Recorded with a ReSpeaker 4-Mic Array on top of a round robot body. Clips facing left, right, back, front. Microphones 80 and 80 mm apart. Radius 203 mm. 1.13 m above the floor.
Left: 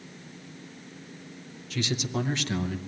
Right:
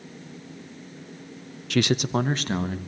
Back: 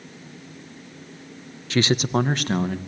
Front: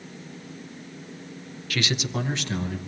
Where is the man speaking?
115° right, 0.5 m; by 2.8 s 140° right, 1.8 m.